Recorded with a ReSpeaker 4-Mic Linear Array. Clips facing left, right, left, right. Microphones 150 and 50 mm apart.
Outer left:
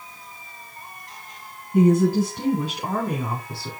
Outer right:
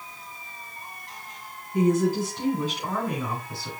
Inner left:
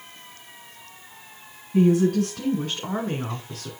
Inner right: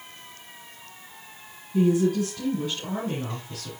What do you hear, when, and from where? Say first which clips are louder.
1.7 s a woman speaking: outer left 4 dB, inner left 3 dB; 50° left (ahead or behind), 1.8 m; by 3.7 s 35° left (ahead or behind), 2.5 m